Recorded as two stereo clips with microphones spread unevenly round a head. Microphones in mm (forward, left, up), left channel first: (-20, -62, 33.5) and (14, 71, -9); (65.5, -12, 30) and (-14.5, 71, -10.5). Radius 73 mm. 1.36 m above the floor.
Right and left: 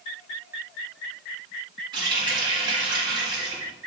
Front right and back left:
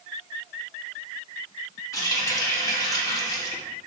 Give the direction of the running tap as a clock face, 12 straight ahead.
12 o'clock.